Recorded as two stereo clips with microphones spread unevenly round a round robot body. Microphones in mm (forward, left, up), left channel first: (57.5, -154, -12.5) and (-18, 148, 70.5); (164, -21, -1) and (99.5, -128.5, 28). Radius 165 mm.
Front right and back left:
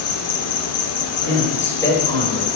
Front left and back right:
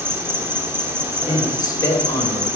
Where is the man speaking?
Straight ahead, 3 m.